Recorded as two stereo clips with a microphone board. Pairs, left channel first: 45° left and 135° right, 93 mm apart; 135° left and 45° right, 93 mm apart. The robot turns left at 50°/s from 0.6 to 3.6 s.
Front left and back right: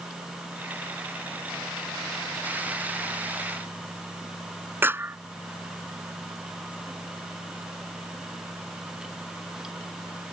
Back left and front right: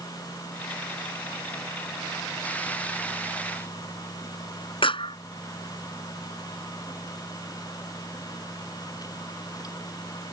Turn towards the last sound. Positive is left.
turn(degrees=160)